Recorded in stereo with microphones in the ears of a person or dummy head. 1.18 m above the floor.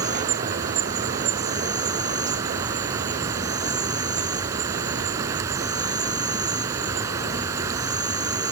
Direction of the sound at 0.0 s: 20° right (ahead or behind).